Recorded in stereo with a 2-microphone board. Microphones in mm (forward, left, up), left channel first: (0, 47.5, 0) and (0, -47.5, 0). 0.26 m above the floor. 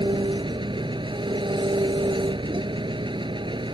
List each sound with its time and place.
0.0 s an engine running: 60° right (ahead or behind)